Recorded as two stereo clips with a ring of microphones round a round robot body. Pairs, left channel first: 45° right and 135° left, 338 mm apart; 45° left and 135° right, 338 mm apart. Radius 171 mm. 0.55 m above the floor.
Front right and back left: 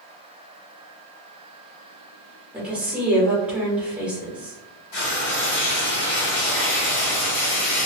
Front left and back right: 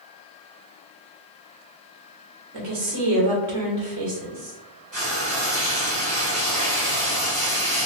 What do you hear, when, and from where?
2.5 s a woman speaking: 140° right, 1.4 m
4.9 s frying: 65° right, 1.9 m